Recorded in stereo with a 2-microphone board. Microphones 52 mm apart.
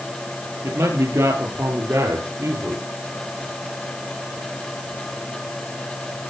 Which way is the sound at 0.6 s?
80° right.